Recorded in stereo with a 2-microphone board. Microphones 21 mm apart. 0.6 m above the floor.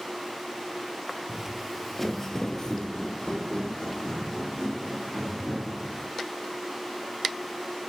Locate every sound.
1.3 s footsteps: 15° right (ahead or behind), 0.7 m; by 6.1 s 50° left (ahead or behind), 3 m